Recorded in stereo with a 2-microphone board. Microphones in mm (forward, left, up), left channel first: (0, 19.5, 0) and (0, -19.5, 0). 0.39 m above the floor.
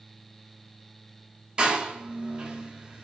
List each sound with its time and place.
1.6 s a door slam: 25° right (ahead or behind), 0.7 m